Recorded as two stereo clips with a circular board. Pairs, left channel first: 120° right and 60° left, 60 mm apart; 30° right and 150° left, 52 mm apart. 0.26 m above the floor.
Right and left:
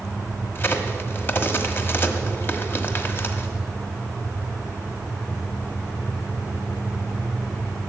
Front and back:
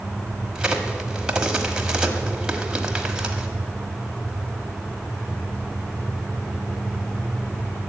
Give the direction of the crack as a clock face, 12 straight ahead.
5 o'clock.